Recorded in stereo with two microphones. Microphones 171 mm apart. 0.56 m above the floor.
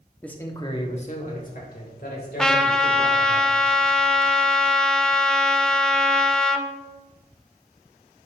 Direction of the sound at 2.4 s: 5° left (ahead or behind).